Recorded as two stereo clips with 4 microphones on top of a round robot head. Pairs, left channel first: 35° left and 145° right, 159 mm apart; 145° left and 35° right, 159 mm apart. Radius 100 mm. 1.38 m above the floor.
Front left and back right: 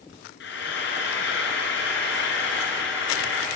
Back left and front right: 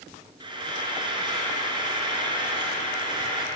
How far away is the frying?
About 4 m.